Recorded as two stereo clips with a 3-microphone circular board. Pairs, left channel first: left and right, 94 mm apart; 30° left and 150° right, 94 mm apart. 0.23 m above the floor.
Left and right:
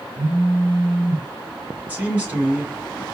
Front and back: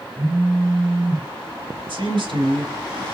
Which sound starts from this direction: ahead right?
A phone buzzing, at 0.2 s.